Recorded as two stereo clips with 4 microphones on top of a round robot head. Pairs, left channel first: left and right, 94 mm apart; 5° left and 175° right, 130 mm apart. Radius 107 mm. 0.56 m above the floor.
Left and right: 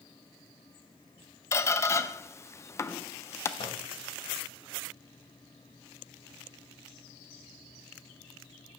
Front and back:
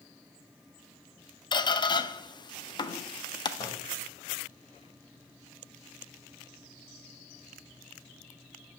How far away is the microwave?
About 2.5 m.